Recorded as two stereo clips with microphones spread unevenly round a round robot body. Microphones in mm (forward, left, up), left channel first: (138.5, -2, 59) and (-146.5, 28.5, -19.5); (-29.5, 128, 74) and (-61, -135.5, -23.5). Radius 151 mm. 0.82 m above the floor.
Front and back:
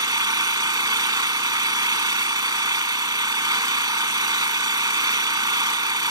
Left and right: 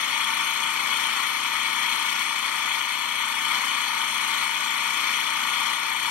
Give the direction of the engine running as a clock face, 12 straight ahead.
9 o'clock.